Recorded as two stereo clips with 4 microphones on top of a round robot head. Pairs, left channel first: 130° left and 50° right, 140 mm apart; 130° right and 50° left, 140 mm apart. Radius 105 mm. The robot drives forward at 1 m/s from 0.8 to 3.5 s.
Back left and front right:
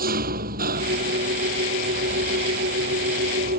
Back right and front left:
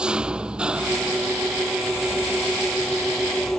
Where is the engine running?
30° right; by 3.6 s 40° right.